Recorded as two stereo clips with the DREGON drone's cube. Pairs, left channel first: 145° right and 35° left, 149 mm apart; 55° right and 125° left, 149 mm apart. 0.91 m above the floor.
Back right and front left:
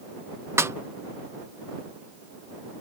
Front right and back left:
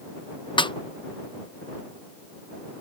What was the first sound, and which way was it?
A snare drum, 25° right.